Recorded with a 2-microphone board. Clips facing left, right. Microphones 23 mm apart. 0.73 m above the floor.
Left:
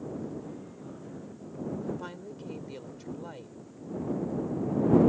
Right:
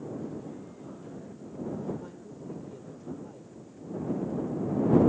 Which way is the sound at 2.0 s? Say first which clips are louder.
Left 2 dB; 75° left (ahead or behind).